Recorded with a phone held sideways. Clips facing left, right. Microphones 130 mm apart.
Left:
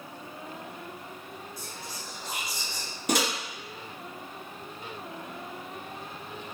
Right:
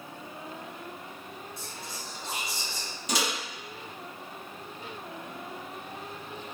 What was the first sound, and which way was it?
Whispering, 25° right (ahead or behind).